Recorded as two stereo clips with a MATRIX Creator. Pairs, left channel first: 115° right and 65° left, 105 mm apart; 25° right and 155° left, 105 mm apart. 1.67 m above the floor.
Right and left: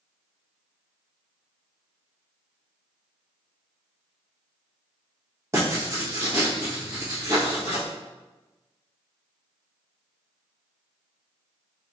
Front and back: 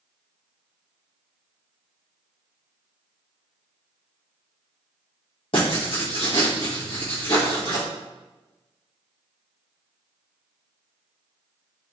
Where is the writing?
5° left, 1.5 m.